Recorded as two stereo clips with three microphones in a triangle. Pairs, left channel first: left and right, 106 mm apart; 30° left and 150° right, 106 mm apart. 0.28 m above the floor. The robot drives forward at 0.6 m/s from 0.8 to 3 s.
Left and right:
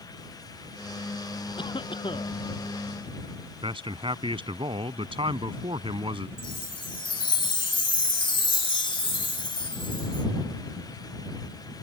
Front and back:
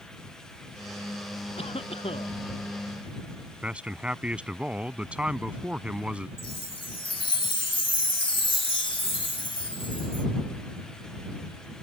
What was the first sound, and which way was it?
A cough, 50° left.